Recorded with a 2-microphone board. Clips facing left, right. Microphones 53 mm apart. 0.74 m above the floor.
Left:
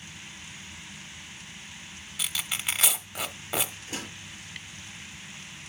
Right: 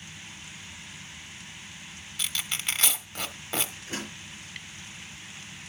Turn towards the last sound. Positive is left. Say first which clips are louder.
# right 1 dB
turn(degrees=-40)  # may be behind; listen again after turning